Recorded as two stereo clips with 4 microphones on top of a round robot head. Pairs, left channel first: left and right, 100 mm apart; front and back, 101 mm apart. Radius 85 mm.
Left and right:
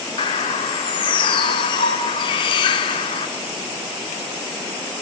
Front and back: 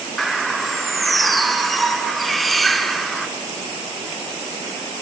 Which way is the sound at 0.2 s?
90° left.